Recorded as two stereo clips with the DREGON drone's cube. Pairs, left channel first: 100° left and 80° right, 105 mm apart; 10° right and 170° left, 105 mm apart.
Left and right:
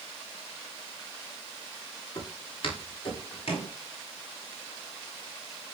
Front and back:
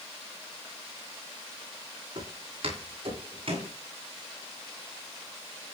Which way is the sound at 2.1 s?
140° left.